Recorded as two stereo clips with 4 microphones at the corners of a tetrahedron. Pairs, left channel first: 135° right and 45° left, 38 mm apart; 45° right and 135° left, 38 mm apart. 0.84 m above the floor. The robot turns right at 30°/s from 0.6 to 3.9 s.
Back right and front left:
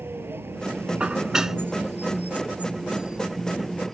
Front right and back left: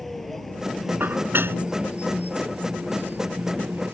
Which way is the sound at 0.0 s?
40° left.